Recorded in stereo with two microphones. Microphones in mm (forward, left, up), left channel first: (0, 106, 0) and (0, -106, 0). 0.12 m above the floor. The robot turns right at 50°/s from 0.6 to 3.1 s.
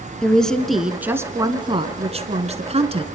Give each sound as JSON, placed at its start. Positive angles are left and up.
{"t": 0.2, "sound": "a woman speaking", "azimuth_deg": 175, "distance_m": 1.3}